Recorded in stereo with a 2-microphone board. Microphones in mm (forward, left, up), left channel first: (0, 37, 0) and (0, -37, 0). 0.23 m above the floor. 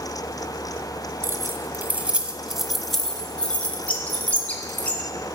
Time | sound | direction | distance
1.2 | keys jangling | 35° right (ahead or behind) | 1.1 m
3.9 | a bird | 20° left (ahead or behind) | 1.5 m